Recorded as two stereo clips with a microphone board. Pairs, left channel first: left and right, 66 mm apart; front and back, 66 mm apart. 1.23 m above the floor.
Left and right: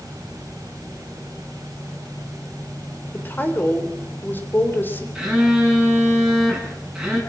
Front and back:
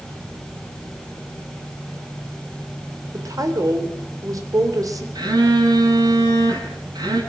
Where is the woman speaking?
150° left, 3.5 m.